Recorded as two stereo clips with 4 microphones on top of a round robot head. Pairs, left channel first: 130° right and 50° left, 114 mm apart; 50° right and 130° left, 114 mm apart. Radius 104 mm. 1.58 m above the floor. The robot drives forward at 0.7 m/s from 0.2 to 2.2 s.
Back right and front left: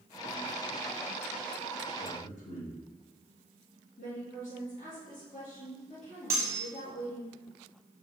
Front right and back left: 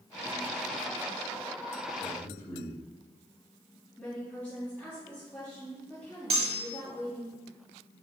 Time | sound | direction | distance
2.0 | a man speaking | 110° right | 2.5 m
4.0 | a woman speaking | 130° right | 3.5 m
6.3 | cutlery clinking | 110° left | 0.7 m